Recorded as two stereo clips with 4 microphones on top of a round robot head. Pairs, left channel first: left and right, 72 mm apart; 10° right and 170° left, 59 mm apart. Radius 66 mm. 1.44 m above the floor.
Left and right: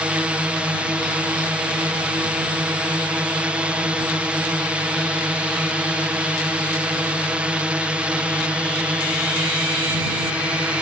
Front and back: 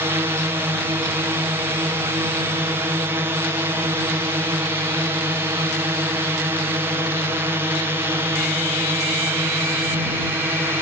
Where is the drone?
160° right.